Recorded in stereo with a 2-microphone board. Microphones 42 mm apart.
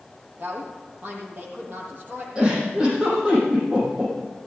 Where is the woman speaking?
40° right (ahead or behind), 6 m.